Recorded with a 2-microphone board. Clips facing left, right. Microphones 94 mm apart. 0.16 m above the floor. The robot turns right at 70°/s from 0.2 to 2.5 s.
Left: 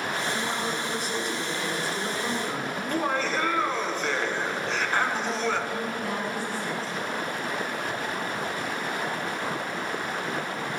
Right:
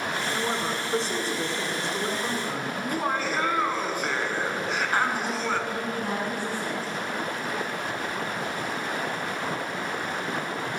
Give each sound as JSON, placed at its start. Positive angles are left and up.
{"t": 0.3, "sound": "a woman speaking", "azimuth_deg": -160, "distance_m": 1.9}
{"t": 2.8, "sound": "laughter", "side_deg": -10, "distance_m": 1.5}
{"t": 5.7, "sound": "a woman speaking", "side_deg": -40, "distance_m": 5.5}